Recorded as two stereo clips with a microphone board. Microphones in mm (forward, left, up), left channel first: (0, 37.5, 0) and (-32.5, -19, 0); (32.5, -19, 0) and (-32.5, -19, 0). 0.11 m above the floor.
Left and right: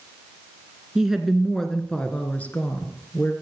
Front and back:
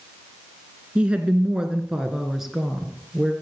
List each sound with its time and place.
0.9 s a woman speaking: straight behind, 1.5 m; by 3.3 s 85° left, 1.9 m